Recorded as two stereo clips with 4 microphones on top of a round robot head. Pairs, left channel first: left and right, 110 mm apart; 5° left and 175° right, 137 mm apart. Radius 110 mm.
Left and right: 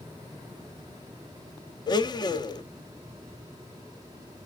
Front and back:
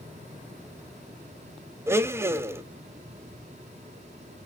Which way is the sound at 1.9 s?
120° left.